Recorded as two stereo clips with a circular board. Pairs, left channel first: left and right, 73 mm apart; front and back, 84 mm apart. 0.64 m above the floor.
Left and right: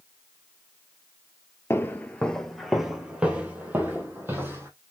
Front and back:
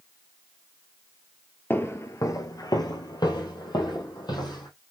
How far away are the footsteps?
About 0.7 m.